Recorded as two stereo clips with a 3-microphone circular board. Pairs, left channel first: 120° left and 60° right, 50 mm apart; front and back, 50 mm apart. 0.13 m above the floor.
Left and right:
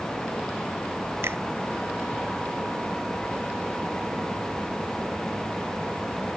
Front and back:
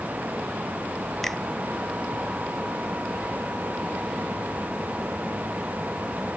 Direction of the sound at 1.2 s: 85° right.